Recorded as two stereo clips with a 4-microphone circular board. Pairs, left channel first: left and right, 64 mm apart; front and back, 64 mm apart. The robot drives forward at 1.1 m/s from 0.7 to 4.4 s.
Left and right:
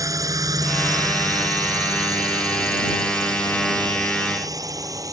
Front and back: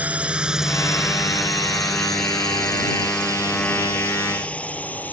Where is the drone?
115° right; by 5.1 s 65° right.